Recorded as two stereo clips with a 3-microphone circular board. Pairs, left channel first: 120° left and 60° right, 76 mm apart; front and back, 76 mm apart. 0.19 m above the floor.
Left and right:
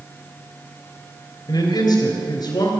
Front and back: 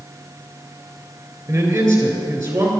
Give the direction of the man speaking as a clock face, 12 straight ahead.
7 o'clock.